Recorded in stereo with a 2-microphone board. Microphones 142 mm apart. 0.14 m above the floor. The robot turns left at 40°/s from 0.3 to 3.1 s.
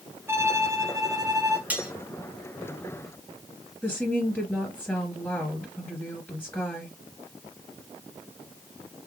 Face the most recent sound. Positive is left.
turn(degrees=10)  # may be behind; listen again after turning